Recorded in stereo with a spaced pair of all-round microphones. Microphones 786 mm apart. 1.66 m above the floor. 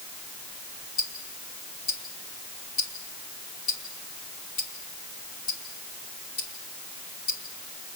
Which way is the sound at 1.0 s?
80° left.